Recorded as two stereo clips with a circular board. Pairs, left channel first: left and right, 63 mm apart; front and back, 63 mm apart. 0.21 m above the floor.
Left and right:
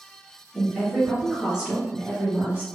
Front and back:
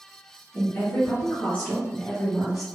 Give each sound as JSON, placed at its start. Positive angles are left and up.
{"t": 0.5, "sound": "a woman speaking", "azimuth_deg": 20, "distance_m": 1.2}